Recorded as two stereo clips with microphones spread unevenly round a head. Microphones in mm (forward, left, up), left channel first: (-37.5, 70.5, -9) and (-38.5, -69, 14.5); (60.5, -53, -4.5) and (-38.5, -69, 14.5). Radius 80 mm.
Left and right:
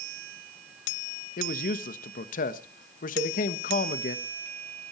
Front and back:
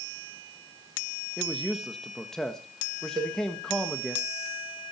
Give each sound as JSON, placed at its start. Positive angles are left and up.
{"t": 1.4, "sound": "a man speaking", "azimuth_deg": 95, "distance_m": 1.2}
{"t": 3.2, "sound": "a cowbell", "azimuth_deg": -125, "distance_m": 5.0}